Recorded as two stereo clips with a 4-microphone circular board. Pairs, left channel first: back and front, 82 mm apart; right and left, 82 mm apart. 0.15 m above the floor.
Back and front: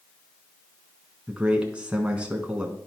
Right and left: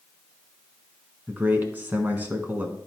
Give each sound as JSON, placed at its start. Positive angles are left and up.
{"t": 1.3, "sound": "a man speaking", "azimuth_deg": 60, "distance_m": 1.3}